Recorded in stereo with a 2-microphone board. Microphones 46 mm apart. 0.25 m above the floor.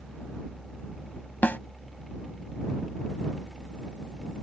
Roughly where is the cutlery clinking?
I don't hear cutlery clinking.